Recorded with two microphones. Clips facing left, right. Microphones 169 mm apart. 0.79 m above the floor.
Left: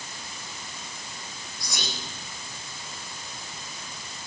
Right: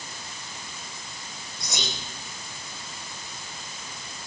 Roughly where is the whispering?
Right.